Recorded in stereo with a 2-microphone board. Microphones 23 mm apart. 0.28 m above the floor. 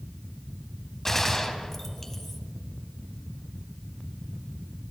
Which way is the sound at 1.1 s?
10° left (ahead or behind).